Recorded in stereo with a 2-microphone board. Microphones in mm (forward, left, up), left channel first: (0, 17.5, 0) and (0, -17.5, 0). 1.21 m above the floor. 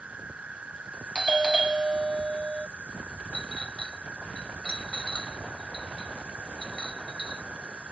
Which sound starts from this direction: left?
A clink, at 3.3 s.